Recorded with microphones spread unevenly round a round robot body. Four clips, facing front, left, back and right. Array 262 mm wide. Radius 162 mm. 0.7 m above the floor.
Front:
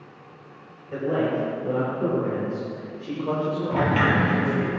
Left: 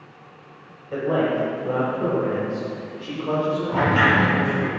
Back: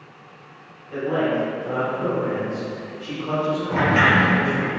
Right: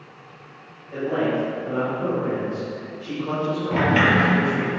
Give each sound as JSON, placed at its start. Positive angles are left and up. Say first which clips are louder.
{"t": 0.9, "sound": "a man speaking", "louder": "left 1 dB, back 2 dB", "azimuth_deg": 30, "distance_m": 3.0}
{"t": 3.7, "sound": "a sliding door", "louder": "right 1 dB, back 4 dB", "azimuth_deg": -125, "distance_m": 3.0}